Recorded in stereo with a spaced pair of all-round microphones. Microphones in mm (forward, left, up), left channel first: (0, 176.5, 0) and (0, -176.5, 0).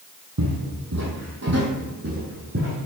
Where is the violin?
I don't hear a violin.